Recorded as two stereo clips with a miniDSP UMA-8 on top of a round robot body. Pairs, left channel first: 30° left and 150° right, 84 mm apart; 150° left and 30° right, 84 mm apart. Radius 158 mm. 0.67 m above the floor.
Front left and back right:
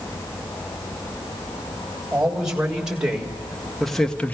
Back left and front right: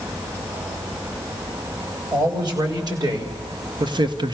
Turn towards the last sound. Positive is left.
turn(degrees=-40)